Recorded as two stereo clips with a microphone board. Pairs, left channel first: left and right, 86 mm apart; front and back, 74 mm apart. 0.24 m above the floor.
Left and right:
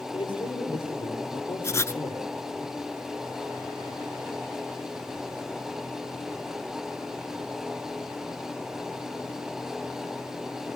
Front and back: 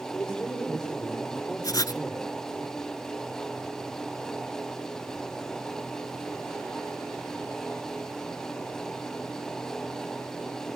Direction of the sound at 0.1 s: 80° left.